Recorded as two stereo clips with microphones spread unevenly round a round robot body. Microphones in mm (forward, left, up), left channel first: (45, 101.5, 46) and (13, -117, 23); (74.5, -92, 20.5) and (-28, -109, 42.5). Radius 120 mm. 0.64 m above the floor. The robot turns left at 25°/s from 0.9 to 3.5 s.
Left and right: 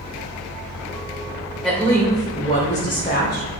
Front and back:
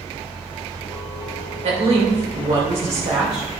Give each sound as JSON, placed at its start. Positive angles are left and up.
{"t": 1.6, "sound": "a woman speaking", "azimuth_deg": 170, "distance_m": 3.0}